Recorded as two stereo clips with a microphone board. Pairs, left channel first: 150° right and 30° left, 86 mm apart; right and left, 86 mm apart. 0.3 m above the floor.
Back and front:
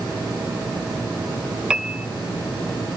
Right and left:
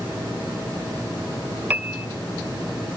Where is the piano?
85° left, 0.6 m.